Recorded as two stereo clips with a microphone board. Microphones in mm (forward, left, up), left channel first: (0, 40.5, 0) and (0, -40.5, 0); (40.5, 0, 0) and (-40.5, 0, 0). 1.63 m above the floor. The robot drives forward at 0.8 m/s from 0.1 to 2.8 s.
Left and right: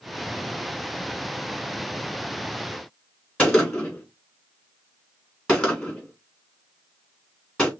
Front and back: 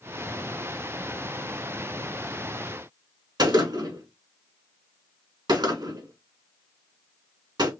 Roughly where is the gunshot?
Behind.